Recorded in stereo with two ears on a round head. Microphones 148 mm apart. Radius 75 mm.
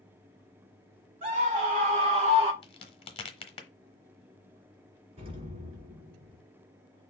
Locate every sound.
1.2 s a scream: 50° right (ahead or behind), 2.5 m; by 2.5 s 40° right (ahead or behind), 1.4 m
2.6 s a crack: 35° left (ahead or behind), 1.0 m
5.2 s an explosion: 40° right (ahead or behind), 2.5 m